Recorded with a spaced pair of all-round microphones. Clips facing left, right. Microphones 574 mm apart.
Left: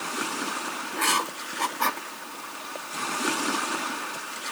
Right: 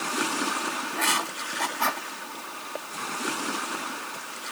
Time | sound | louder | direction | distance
0.9 | writing | left 1 dB | 5° right (ahead or behind) | 0.9 m